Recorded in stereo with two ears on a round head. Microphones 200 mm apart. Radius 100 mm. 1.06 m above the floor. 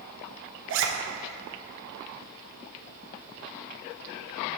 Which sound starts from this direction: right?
A zipper, at 0.7 s.